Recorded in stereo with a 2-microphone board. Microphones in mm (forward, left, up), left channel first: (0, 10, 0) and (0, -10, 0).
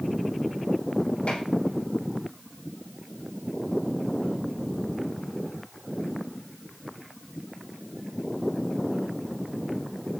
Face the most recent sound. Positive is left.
turn(degrees=60)  # may be behind; listen again after turning